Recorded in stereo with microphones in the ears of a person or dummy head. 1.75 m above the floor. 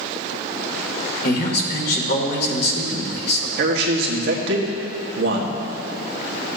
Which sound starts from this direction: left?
A man speaking, at 1.2 s.